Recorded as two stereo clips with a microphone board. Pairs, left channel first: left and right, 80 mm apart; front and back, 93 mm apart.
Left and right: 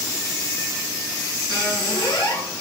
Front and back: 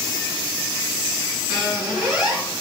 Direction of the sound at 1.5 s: 100° left.